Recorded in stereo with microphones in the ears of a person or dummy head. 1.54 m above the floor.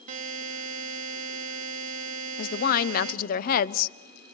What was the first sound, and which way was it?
A buzzer, 45° right (ahead or behind).